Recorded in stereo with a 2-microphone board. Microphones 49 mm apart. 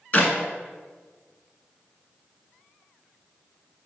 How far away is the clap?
About 1.2 m.